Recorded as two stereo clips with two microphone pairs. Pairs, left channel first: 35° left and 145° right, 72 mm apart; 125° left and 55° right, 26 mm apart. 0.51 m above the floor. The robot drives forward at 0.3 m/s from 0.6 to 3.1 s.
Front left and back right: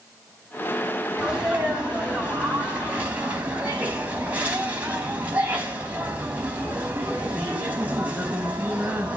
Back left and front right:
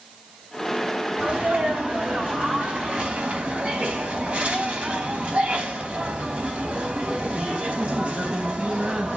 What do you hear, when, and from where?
1.2 s a sneeze: 70° right, 4.5 m; by 9.2 s 75° right, 4.5 m